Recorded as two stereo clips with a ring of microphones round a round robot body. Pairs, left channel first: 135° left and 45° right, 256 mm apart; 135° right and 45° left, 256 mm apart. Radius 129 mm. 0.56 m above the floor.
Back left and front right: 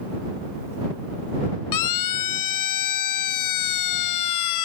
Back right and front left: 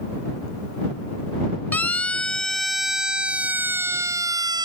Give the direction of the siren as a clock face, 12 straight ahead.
7 o'clock.